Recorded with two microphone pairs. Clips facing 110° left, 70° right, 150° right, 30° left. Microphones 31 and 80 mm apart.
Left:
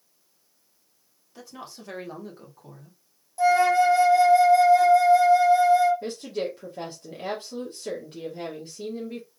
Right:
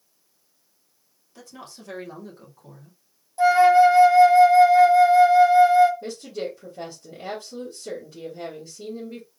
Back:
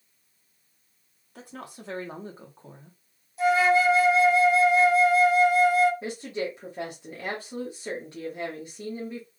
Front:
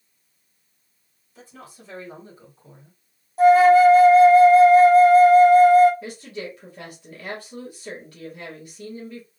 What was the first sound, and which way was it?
A woman speaking, 170° right.